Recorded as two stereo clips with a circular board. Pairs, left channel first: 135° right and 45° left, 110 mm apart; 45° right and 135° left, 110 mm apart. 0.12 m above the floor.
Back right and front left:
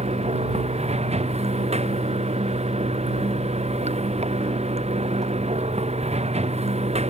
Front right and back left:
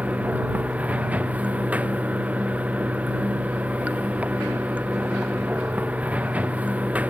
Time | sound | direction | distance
0.0 | running water | 55° left | ?